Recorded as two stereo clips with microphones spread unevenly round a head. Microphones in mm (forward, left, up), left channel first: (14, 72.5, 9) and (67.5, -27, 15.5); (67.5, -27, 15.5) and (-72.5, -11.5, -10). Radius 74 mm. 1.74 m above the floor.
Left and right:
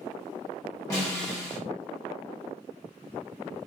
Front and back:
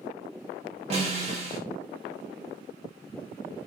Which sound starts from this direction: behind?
A snare drum, at 0.9 s.